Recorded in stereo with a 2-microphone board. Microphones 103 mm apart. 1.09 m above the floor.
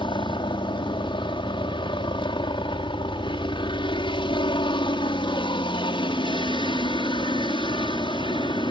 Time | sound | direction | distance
0.0 | a helicopter | 50° left (ahead or behind) | ?